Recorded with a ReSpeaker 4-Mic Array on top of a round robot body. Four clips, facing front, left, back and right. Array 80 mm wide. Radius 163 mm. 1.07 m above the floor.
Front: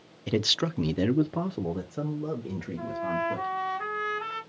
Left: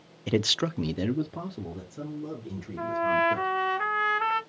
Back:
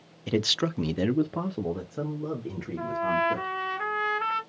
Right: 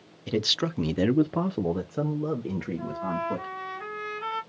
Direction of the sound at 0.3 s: 100° left.